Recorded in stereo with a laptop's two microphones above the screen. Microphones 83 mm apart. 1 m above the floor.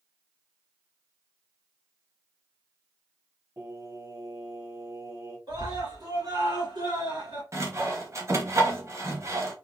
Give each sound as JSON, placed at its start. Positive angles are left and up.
{"t": 3.6, "sound": "singing", "side_deg": -45, "distance_m": 1.4}
{"t": 5.5, "sound": "a scream", "side_deg": -75, "distance_m": 2.5}
{"t": 7.5, "sound": "sawing", "side_deg": -40, "distance_m": 0.9}